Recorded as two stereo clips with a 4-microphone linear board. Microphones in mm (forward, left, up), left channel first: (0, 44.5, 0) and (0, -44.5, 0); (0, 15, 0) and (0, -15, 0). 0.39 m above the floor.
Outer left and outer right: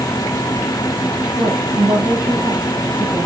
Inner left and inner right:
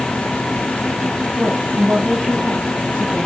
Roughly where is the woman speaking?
Right.